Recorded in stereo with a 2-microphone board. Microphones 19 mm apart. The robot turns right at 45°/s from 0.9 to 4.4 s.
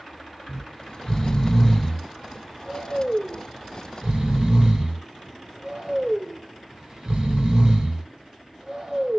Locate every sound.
0.5 s snoring: 35° left (ahead or behind), 1.5 m; by 9.2 s 45° right (ahead or behind), 1.5 m